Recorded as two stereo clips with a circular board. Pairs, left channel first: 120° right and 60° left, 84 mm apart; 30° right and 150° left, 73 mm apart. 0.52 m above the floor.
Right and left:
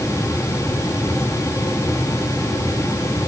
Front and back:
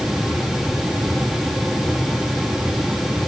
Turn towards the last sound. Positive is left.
No sound to turn to.